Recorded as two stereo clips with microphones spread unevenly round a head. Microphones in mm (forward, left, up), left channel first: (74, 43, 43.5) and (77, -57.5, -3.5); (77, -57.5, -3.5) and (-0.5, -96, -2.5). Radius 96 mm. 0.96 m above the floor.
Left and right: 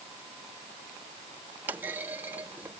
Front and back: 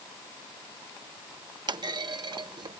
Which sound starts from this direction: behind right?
A clunk, at 1.7 s.